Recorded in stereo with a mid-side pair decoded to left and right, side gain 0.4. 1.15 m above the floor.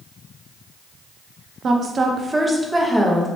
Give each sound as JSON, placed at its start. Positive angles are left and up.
{"t": 1.6, "sound": "a woman speaking", "azimuth_deg": -55, "distance_m": 0.7}